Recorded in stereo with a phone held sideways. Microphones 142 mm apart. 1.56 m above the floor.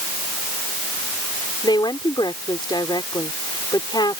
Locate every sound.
1.6 s a woman speaking: 30° left (ahead or behind)